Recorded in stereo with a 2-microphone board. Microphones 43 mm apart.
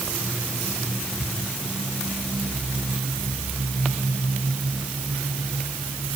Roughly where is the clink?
No clink in this recording.